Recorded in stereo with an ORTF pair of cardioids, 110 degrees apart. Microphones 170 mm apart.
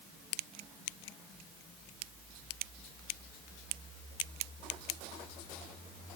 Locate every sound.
Only background noise.